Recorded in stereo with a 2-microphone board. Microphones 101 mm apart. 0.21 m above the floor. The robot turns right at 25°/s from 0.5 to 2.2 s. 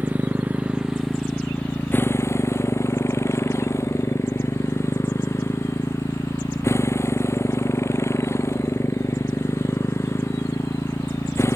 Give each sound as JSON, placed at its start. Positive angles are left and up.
{"t": 0.0, "sound": "a motorcycle", "azimuth_deg": -15}